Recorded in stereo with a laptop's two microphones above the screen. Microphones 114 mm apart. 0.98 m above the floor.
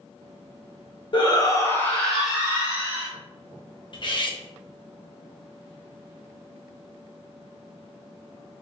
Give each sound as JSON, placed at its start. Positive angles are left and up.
{"t": 1.1, "sound": "a shout", "side_deg": 45, "distance_m": 0.8}
{"t": 3.9, "sound": "cutlery clinking", "side_deg": 45, "distance_m": 0.5}